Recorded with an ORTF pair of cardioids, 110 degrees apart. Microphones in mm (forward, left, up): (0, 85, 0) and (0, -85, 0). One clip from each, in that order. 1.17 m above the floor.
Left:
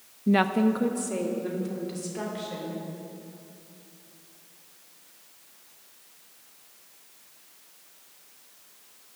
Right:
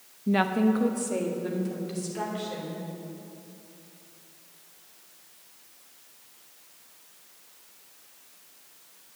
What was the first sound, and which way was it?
A woman speaking, 20° left.